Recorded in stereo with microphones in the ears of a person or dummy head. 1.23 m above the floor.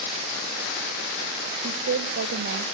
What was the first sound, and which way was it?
A woman speaking, 55° right (ahead or behind).